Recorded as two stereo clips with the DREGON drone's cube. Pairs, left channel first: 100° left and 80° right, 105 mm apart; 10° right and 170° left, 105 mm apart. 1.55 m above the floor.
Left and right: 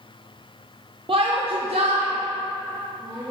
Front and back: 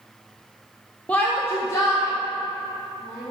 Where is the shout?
85° right, 0.5 m; by 3.3 s 65° right, 1.6 m.